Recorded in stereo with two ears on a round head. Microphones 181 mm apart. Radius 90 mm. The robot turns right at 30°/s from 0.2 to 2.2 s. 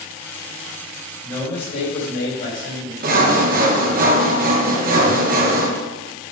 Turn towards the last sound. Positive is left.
turn(degrees=-45)  # may be behind; listen again after turning